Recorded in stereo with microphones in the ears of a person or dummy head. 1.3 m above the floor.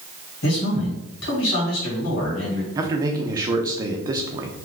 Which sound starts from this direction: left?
A man speaking, at 0.4 s.